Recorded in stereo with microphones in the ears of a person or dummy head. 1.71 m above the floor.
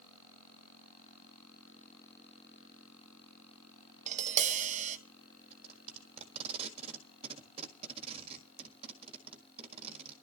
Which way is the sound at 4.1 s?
45° right (ahead or behind).